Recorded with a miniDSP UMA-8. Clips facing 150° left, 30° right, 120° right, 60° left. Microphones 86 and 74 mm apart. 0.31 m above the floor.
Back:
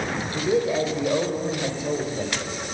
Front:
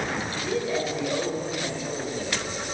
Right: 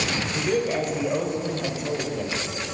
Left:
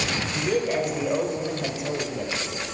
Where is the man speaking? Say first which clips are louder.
Back 7 dB, even; 140° left, 1.0 m.